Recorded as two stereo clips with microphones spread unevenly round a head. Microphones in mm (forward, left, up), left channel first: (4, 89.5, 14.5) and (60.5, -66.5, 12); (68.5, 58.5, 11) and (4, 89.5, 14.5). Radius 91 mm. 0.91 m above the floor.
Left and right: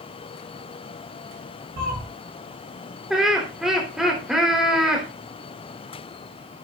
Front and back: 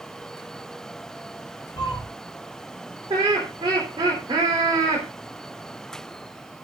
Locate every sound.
1.8 s a cat meowing: 35° right, 4 m
3.1 s laughter: 160° right, 3 m